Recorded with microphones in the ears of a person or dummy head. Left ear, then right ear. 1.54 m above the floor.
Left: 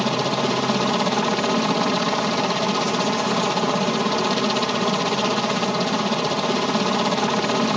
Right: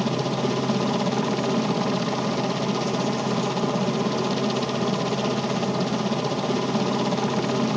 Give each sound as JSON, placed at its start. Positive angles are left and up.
{"t": 0.0, "sound": "a helicopter", "side_deg": 45}